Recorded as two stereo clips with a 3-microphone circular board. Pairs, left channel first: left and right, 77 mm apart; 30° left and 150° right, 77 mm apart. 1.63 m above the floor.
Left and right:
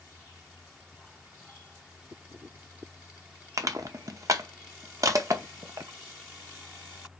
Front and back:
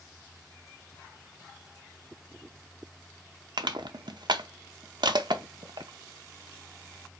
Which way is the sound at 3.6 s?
135° right.